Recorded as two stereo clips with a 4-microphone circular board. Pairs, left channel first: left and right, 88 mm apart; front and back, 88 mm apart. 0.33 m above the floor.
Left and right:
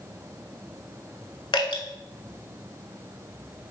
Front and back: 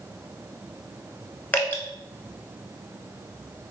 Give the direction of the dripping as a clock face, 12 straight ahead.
10 o'clock.